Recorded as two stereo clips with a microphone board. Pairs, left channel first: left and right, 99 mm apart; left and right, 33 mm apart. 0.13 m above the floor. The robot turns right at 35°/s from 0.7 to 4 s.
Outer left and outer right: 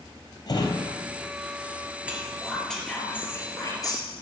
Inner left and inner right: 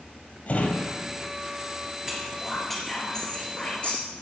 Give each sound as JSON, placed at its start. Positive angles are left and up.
{"t": 0.5, "sound": "a drawer", "side_deg": 40, "distance_m": 2.0}
{"t": 2.1, "sound": "whispering", "side_deg": -10, "distance_m": 3.0}